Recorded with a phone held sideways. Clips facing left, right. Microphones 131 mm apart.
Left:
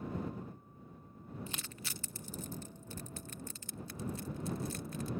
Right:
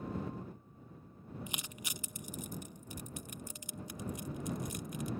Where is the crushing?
15° right (ahead or behind).